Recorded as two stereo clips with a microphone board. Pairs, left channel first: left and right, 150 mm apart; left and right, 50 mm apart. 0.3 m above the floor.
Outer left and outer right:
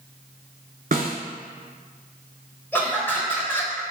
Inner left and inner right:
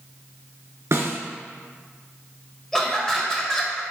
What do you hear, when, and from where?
0.9 s a snare drum: 70° right (ahead or behind), 0.8 m
2.7 s laughter: 15° left (ahead or behind), 1.1 m